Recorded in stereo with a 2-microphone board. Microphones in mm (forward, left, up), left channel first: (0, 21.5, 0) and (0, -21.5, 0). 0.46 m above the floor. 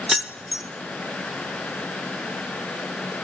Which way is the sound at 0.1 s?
10° right (ahead or behind).